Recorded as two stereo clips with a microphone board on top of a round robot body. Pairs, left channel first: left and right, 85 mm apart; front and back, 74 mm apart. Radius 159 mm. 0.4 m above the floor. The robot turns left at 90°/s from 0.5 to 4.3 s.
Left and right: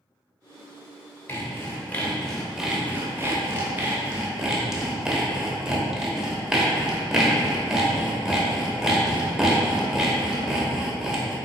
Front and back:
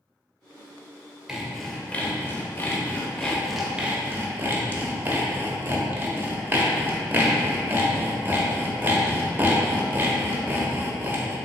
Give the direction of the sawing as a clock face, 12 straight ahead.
9 o'clock.